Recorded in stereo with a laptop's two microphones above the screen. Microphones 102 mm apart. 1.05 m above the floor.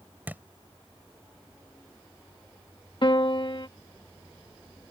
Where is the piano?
50° left (ahead or behind).